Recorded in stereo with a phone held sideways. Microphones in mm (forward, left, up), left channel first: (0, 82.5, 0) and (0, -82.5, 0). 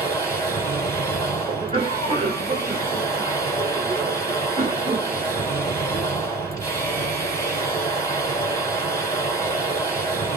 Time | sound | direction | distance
0.0 | a machine running | 15° left (ahead or behind) | 2.5 m
1.5 | a cough | 35° right (ahead or behind) | 1.7 m